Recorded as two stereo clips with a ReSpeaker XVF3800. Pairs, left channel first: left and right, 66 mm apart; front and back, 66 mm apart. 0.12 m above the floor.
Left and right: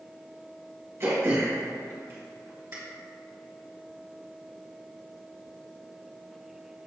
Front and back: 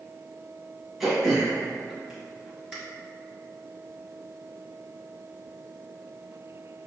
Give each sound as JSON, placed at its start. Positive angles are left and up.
{"t": 1.0, "sound": "throat clearing", "azimuth_deg": -95, "distance_m": 2.0}